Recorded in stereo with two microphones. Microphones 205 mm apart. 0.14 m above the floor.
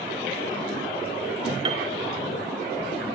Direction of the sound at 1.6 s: 25° right (ahead or behind).